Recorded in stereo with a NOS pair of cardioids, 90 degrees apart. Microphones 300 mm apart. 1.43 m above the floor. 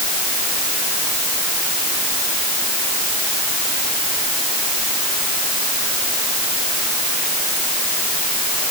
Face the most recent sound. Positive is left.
No sound to turn to.